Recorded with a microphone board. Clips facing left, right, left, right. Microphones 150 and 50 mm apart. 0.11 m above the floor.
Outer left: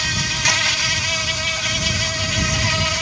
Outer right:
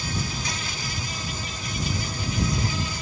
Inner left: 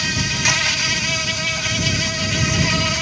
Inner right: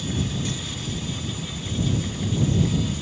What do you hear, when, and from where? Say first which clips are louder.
0.0 s an insect: outer left 3 dB, inner left 7 dB; 70° left (ahead or behind)